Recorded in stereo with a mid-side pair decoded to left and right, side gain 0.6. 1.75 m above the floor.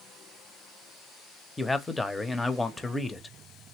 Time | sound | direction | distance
1.6 | a man speaking | 10° left | 0.7 m